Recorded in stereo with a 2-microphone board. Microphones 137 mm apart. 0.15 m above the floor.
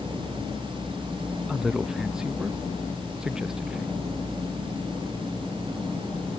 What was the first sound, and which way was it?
A man speaking, 5° right (ahead or behind).